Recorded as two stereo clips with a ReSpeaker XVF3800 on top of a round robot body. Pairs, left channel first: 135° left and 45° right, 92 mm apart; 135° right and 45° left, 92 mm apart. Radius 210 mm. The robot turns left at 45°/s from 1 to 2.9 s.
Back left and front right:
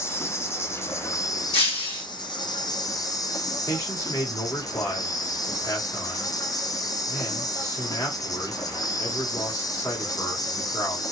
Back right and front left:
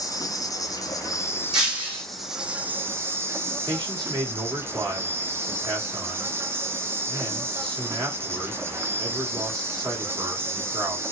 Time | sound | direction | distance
0.0 | an insect | 175° right | 0.9 m
1.5 | breaking glass | 130° left | 1.8 m
3.7 | a man speaking | 80° left | 1.9 m